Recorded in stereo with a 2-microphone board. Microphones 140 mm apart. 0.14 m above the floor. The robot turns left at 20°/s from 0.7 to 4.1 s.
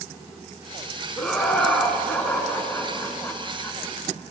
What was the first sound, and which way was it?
Laughter, centre (ahead or behind).